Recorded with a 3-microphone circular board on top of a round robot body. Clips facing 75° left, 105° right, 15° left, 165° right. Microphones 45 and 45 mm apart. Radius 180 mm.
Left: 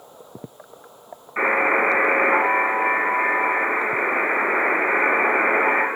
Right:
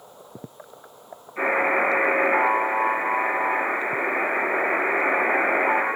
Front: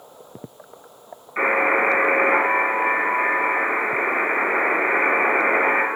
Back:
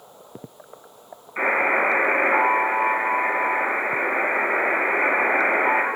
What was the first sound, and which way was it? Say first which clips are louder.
A buzzer: left 3 dB, front 2 dB; 90° left.